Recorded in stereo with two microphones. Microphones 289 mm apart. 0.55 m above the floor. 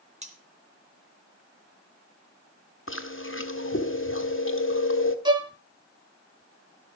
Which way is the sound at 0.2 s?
25° right (ahead or behind).